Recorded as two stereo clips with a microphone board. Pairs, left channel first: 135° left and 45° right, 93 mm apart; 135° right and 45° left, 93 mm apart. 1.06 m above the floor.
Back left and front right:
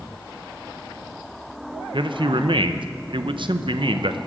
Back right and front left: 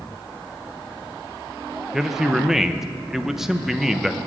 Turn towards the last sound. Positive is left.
turn(degrees=-40)